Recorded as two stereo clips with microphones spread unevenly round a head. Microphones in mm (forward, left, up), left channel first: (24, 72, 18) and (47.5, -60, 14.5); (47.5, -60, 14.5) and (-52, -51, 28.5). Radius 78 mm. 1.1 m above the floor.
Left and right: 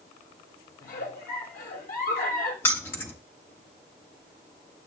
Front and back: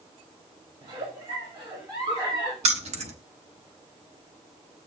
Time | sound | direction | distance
0.8 | a giggle | 115° left | 2 m
2.6 | keys jangling | 175° left | 1.1 m